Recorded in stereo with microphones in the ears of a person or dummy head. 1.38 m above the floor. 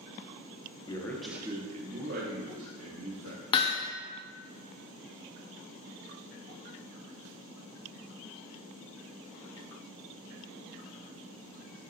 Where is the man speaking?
25° left (ahead or behind), 0.9 m; by 3.7 s 80° right, 2.5 m.